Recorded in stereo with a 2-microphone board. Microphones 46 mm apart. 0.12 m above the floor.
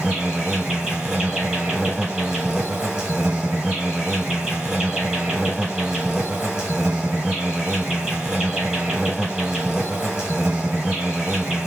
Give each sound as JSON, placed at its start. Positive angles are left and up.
{"t": 0.0, "sound": "an insect", "side_deg": -15, "distance_m": 1.1}